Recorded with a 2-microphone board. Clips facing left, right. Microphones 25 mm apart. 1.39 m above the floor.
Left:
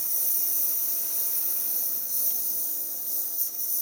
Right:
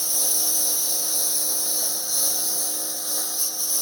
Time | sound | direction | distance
0.0 | a lawn mower | 70° right (ahead or behind) | ?